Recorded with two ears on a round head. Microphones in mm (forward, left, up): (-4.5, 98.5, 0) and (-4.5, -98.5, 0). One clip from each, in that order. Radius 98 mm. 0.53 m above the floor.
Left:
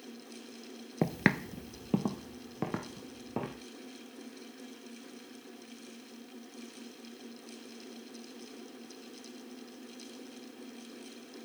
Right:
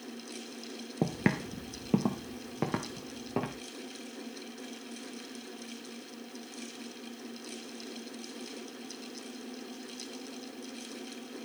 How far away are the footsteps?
About 0.6 m.